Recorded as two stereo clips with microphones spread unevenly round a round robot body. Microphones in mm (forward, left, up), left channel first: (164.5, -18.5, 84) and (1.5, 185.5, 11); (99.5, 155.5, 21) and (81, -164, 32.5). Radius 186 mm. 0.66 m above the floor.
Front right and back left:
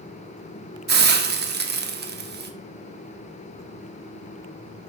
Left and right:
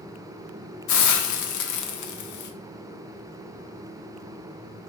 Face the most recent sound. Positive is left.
turn(degrees=100)